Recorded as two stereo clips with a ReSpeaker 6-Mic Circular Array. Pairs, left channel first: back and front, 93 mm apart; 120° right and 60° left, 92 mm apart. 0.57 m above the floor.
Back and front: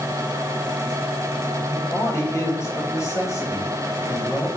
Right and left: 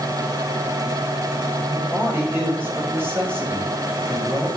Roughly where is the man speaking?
Behind left.